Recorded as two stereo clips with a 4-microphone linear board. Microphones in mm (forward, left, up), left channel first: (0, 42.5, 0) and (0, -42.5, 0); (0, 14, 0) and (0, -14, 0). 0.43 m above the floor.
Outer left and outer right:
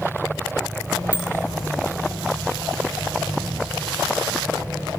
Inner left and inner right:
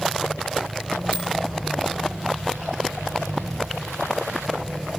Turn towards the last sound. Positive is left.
turn(degrees=60)  # may be behind; listen again after turning